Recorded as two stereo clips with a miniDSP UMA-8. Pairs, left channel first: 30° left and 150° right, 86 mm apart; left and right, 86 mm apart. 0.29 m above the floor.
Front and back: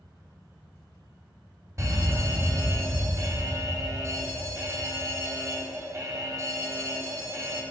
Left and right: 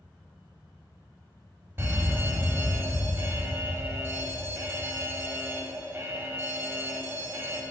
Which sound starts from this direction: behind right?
A fire alarm, at 1.8 s.